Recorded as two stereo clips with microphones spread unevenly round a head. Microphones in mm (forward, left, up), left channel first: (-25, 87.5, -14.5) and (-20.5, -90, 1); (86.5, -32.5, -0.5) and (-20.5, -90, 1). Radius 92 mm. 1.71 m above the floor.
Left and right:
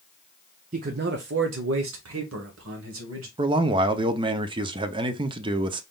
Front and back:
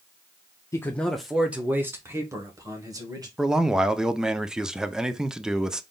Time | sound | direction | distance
0.7 | a man speaking | 40° right | 0.5 m
3.4 | a man speaking | 70° right | 0.5 m